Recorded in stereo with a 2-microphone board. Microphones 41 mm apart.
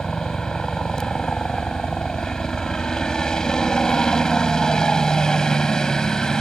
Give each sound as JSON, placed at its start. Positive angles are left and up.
{"t": 0.0, "sound": "a helicopter", "side_deg": 15}